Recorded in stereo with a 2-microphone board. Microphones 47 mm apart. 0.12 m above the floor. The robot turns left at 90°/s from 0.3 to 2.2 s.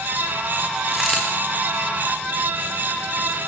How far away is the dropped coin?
About 6 m.